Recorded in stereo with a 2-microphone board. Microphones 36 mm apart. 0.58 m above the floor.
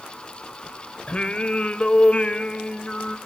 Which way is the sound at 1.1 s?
35° left (ahead or behind).